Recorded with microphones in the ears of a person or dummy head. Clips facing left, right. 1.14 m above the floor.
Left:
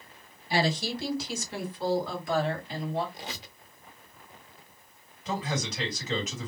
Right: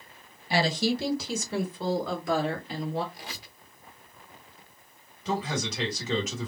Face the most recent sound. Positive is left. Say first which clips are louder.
# right 2 dB
turn(degrees=-65)  # may be behind; listen again after turning